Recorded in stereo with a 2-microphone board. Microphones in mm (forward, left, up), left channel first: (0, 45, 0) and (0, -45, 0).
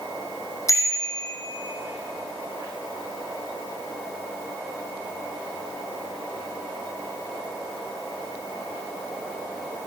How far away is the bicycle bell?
About 3.5 m.